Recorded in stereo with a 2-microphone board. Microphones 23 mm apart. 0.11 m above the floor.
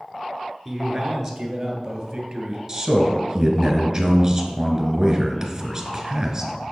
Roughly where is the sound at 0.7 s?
Centre.